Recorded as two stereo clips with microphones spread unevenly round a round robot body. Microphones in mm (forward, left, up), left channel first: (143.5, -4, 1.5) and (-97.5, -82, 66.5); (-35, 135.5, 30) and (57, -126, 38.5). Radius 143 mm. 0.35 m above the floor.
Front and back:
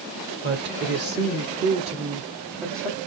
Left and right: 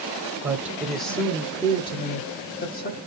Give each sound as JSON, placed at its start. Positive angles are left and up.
{"t": 0.4, "sound": "a woman speaking", "azimuth_deg": -150, "distance_m": 1.4}